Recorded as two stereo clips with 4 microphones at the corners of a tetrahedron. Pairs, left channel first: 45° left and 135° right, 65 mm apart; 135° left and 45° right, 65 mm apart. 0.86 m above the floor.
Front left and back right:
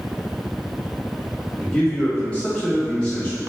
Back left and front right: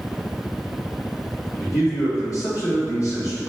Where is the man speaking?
120° left, 1.7 m.